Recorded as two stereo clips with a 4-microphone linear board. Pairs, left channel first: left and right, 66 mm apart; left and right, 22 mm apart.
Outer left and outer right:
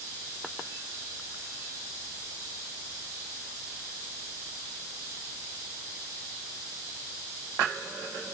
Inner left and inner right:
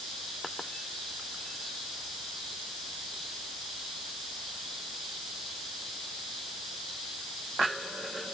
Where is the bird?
No bird in this recording.